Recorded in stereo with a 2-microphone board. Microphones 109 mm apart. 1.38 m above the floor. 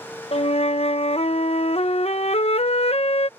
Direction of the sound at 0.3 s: 65° left (ahead or behind).